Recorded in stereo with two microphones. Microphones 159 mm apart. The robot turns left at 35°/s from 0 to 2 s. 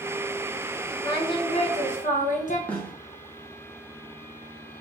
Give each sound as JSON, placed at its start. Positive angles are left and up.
{"t": 1.0, "sound": "singing", "azimuth_deg": 155, "distance_m": 0.8}
{"t": 2.7, "sound": "a snare drum", "side_deg": 10, "distance_m": 0.8}